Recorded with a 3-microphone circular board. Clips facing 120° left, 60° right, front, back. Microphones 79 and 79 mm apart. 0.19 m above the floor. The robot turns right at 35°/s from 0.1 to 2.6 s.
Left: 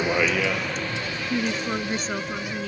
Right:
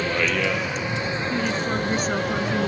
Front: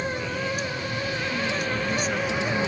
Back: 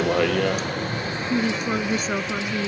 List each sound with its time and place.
0.0 s a vehicle: 165° right; by 2.7 s 70° right
1.3 s a woman speaking: 170° right; by 2.7 s 125° right